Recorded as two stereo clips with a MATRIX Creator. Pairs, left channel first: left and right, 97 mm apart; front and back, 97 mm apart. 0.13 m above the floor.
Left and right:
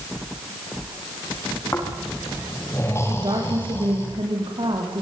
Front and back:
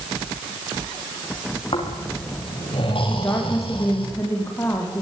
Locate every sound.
1.7 s snoring: 25° left, 8.5 m
3.1 s a woman speaking: 60° right, 9 m